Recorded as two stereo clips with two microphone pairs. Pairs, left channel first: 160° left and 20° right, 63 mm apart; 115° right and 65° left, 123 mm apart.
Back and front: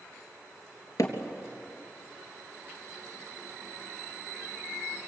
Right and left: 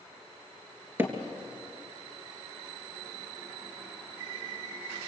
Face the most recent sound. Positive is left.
turn(degrees=140)